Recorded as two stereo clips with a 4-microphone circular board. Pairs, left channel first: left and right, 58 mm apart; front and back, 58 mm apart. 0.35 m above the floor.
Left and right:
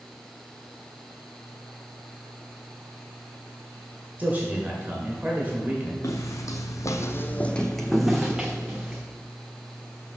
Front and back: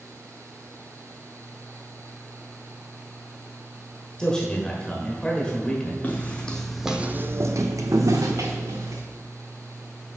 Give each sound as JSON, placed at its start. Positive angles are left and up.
{"t": 4.2, "sound": "a man speaking", "azimuth_deg": -65, "distance_m": 1.3}
{"t": 6.0, "sound": "footsteps", "azimuth_deg": 60, "distance_m": 1.2}